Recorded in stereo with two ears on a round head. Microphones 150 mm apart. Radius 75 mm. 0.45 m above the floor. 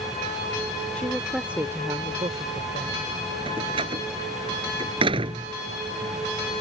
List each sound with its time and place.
0.9 s a woman speaking: 10° left (ahead or behind); by 3.1 s 45° right (ahead or behind)
3.5 s a door slam: 35° right (ahead or behind)